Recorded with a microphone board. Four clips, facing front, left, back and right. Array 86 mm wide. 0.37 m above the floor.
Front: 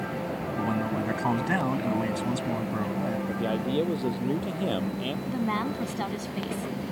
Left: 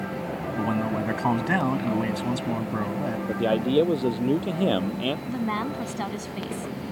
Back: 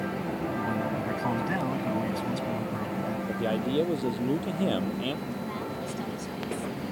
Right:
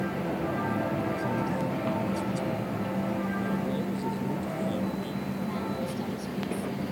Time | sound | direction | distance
0.6 | a man speaking | 70° left | ?
3.3 | a man speaking | 95° left | ?
5.3 | a woman speaking | 50° left | ?